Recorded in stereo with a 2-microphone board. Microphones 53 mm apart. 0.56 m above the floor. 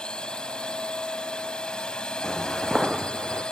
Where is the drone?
15° left (ahead or behind).